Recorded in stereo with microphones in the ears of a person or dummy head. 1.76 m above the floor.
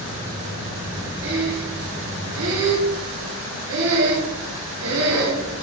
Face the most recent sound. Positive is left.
turn(degrees=-75)  # may be behind; listen again after turning